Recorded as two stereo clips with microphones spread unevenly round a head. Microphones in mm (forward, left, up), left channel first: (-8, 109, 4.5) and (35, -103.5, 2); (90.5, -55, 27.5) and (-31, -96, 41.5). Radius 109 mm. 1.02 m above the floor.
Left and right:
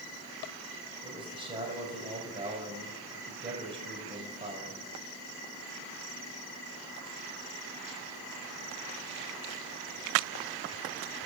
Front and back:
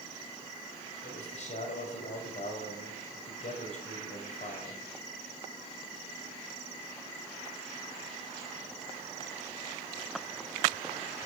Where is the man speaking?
10° right, 5 m.